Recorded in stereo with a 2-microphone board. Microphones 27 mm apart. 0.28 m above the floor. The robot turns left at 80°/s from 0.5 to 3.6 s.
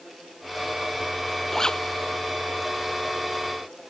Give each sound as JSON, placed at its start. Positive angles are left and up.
{"t": 1.5, "sound": "a zipper", "side_deg": 15}